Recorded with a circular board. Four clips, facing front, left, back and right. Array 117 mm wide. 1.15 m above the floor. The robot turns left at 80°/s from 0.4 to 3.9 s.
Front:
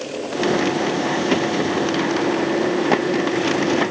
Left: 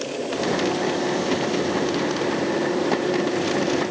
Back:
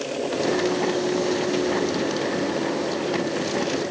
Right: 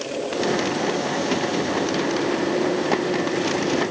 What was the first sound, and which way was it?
Only background noise.